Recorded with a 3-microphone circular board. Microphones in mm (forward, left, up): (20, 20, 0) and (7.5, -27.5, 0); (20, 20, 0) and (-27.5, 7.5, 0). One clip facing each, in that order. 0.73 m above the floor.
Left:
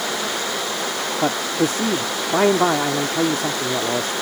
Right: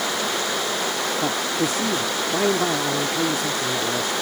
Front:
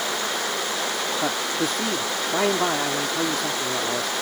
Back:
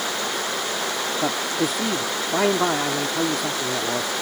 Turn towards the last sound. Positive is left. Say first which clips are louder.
# left 6 dB, back 3 dB
turn(degrees=110)